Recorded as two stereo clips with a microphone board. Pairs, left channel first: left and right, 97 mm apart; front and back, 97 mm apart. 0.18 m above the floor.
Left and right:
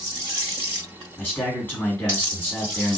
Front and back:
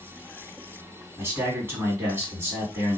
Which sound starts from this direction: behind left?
A man speaking, at 1.2 s.